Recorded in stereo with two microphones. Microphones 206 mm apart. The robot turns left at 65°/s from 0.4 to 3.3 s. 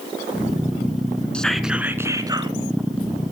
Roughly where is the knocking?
I don't hear knocking.